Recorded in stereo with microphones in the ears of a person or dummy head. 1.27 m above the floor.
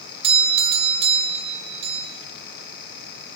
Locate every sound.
0.2 s a doorbell: 30° right (ahead or behind), 3.5 m